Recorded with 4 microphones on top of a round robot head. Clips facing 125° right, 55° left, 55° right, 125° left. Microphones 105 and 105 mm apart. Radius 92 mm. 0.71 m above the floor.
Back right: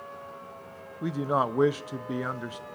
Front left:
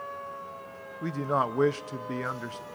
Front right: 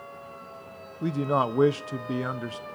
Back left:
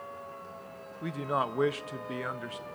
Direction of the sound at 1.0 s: 55° right.